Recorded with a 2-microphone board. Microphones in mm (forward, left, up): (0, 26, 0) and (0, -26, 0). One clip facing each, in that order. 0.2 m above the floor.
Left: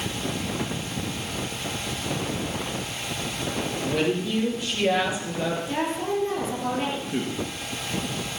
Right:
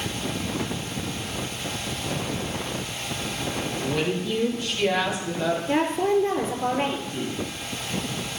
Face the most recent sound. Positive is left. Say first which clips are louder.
# left 2 dB
turn(degrees=65)  # may be behind; listen again after turning